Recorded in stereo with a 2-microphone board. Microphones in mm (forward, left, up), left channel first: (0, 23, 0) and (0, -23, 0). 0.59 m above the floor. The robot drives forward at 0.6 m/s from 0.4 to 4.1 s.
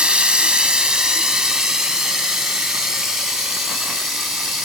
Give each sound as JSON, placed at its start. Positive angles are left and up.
{"t": 0.0, "sound": "running water", "side_deg": -20, "distance_m": 1.0}